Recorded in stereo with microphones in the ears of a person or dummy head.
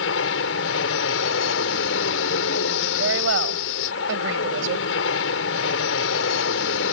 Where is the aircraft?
70° left (ahead or behind).